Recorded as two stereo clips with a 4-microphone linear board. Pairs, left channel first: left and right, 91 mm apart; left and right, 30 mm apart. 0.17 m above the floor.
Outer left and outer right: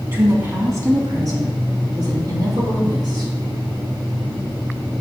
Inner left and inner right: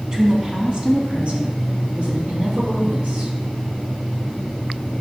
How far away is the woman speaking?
About 1.6 m.